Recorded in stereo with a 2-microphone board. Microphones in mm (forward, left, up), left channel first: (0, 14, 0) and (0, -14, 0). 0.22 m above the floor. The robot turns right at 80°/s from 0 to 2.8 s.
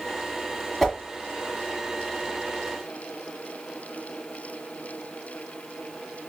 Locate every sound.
0.8 s a whoosh: 5° left (ahead or behind), 1.2 m; by 1.0 s 5° right (ahead or behind), 1.2 m